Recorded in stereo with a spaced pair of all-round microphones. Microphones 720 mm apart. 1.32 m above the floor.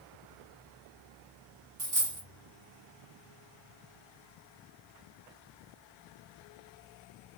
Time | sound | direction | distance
1.8 | a dropped coin | 60° right (ahead or behind) | 1.7 m